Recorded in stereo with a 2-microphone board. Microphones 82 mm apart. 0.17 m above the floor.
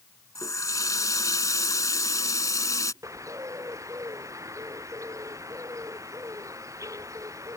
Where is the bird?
40° right (ahead or behind).